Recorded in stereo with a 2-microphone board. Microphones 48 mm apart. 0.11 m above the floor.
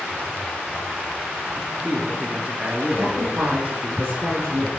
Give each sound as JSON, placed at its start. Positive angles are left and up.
{"t": 1.6, "sound": "a man speaking", "side_deg": -35, "distance_m": 1.2}
{"t": 3.0, "sound": "a woman speaking", "side_deg": -60, "distance_m": 3.0}